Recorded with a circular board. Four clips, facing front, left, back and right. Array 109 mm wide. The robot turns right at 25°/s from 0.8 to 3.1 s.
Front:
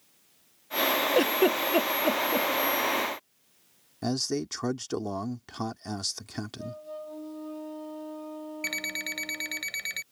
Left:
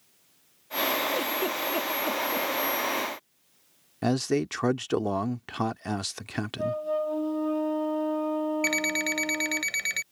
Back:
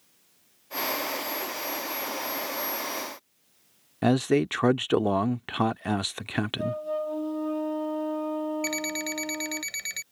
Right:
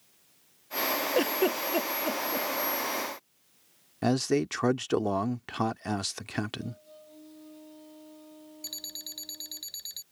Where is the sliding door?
No sliding door in this recording.